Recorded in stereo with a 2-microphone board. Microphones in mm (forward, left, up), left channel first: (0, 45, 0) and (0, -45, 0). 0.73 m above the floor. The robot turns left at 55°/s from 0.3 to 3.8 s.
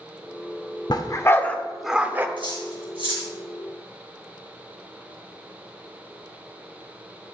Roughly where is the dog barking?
Left.